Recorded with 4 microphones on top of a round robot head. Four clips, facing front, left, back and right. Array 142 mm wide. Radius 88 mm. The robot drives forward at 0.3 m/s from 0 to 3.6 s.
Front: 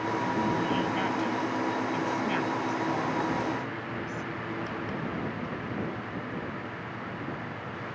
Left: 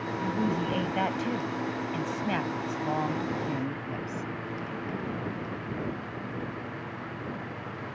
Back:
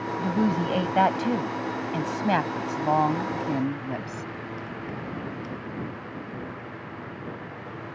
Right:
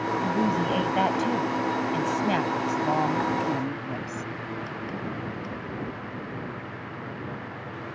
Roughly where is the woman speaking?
Behind.